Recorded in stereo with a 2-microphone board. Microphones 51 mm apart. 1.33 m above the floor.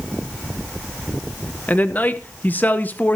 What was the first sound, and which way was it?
A man speaking, 35° left (ahead or behind).